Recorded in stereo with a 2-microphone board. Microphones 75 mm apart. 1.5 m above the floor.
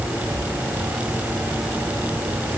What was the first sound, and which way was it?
Only background noise.